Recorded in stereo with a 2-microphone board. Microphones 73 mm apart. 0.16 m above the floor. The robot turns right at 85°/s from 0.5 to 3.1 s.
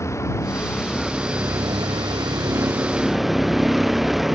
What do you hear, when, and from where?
0.0 s a vehicle: 135° left; by 4.3 s 5° right